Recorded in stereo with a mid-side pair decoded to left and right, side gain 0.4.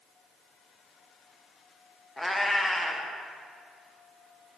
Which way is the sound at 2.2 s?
15° left.